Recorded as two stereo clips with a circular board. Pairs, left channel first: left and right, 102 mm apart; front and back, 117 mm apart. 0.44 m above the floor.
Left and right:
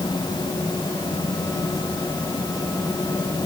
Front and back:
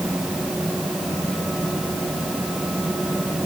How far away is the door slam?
I don't hear a door slam.